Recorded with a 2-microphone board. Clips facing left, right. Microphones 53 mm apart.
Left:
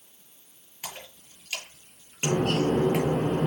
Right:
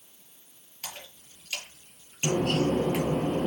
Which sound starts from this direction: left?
A bird, at 2.2 s.